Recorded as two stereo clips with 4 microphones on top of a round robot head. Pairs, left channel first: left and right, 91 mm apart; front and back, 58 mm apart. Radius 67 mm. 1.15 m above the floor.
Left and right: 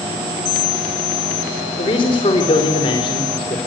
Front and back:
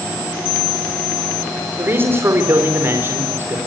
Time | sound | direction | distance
1.8 | a man speaking | 130° left | 4.5 m